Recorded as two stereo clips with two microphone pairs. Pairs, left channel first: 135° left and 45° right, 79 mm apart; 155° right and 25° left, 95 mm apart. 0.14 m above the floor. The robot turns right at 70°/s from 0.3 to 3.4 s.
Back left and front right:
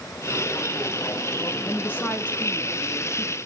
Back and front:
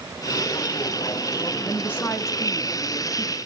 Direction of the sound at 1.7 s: 145° left.